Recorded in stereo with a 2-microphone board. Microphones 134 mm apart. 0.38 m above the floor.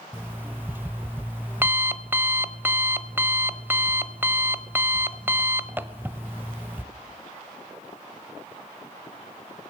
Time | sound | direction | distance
0.1 | an alarm clock | 15° right (ahead or behind) | 0.9 m